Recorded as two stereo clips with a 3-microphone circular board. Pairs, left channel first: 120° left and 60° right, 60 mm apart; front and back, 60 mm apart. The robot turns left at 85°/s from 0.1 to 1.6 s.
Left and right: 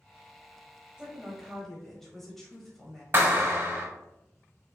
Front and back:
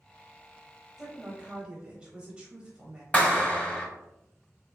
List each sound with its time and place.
1.0 s a woman speaking: 115° right, 1.0 m; by 3.0 s 170° right, 1.0 m
3.1 s a clap: 55° right, 0.9 m